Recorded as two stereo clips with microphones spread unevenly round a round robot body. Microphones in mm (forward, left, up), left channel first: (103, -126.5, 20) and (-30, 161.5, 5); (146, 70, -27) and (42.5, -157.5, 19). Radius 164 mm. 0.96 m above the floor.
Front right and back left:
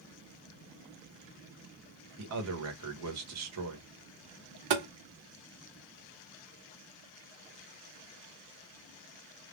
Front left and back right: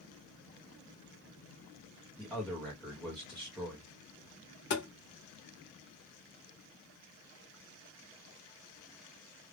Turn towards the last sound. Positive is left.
turn(degrees=120)